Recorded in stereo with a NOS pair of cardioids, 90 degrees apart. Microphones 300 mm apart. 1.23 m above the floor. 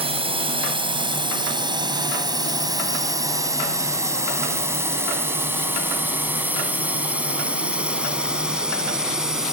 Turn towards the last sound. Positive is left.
turn(degrees=0)